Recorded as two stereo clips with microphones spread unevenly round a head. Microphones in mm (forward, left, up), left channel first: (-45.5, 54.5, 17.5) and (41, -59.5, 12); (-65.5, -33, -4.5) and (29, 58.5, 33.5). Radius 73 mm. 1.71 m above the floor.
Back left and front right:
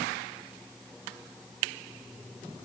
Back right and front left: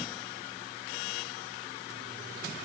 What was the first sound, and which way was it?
Only background noise.